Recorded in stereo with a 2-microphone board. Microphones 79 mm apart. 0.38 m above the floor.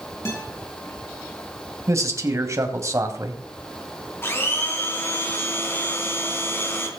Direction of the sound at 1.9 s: 35° right (ahead or behind).